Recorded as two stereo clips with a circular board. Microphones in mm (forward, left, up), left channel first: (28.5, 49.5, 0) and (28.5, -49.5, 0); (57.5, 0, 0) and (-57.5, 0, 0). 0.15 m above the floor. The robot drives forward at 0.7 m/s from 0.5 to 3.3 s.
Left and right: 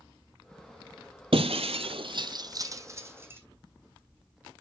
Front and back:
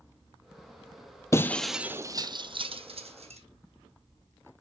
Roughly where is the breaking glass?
Ahead right.